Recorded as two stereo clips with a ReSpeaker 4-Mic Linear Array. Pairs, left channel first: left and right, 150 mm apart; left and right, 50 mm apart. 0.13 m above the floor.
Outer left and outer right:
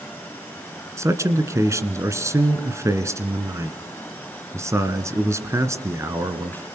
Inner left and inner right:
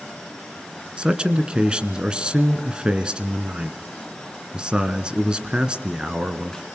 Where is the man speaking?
20° right (ahead or behind), 1.9 m.